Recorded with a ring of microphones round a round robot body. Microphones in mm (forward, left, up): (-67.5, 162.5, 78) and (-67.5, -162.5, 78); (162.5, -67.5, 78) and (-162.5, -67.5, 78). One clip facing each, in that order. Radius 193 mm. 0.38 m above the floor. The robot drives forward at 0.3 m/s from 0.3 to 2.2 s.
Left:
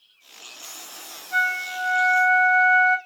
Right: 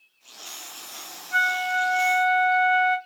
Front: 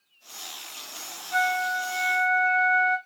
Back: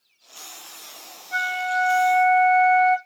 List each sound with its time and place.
1.3 s a flute: straight behind, 2 m